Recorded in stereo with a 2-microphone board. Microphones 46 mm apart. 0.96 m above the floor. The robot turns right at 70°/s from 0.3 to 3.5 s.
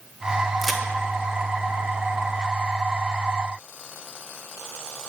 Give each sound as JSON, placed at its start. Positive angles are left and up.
{"t": 0.6, "sound": "a crack", "side_deg": -5, "distance_m": 0.5}